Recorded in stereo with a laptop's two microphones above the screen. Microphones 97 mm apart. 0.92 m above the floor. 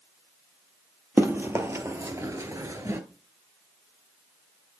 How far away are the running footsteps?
About 1.5 m.